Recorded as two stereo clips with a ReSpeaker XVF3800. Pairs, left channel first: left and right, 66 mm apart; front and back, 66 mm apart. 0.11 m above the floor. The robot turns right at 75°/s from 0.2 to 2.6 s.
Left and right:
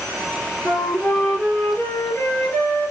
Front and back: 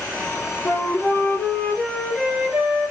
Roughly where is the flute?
Ahead.